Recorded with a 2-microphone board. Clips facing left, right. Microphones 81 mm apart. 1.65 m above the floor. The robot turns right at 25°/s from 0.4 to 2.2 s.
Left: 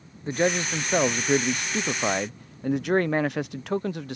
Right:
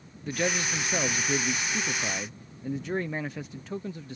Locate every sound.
0.3 s a man speaking: 30° left; by 4.2 s 75° left